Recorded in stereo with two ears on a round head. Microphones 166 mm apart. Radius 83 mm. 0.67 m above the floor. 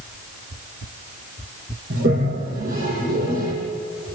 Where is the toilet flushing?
50° right (ahead or behind), 8.5 m.